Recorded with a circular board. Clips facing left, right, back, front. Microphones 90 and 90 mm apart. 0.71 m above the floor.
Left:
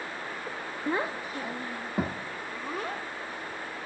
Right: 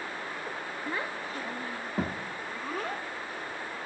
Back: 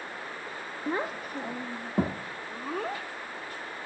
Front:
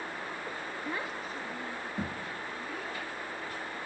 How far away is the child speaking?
About 0.5 m.